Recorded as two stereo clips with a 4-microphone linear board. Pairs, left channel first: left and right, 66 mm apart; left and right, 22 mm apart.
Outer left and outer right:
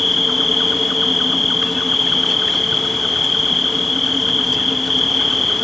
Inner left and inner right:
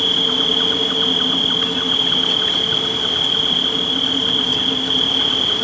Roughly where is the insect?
Centre.